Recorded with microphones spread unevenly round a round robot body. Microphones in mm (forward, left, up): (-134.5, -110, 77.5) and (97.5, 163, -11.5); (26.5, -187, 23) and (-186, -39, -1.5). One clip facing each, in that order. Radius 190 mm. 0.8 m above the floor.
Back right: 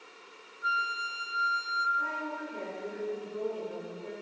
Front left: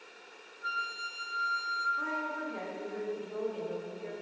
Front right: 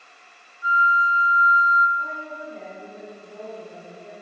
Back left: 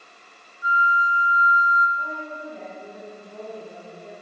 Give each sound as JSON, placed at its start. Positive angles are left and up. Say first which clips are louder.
{"t": 0.6, "sound": "a flute", "louder": "back right 6 dB, even", "azimuth_deg": -85, "distance_m": 1.0}
{"t": 2.0, "sound": "a woman speaking", "louder": "front left 1 dB, back left 1 dB", "azimuth_deg": 65, "distance_m": 1.9}